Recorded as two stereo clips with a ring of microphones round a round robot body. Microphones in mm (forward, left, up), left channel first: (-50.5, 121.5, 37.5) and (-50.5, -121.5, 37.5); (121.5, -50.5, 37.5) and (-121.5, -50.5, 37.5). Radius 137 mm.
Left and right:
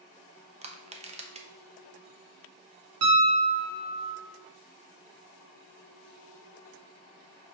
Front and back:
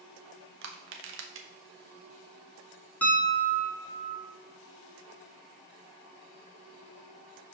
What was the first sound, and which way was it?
Crushing, 150° right.